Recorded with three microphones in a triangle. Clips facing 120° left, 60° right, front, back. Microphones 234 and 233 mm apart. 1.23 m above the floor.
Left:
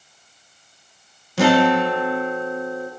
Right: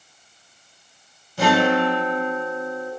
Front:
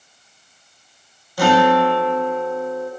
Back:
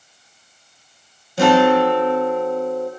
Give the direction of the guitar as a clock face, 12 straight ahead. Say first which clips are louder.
Left 3 dB, back 2 dB; 8 o'clock.